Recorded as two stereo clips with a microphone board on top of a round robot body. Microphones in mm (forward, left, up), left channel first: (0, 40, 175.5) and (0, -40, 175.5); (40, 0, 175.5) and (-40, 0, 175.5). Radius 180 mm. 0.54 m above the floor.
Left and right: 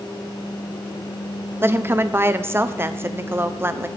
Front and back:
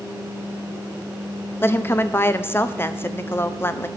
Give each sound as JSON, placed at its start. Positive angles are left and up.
{"t": 1.6, "sound": "a woman speaking", "azimuth_deg": -45, "distance_m": 0.7}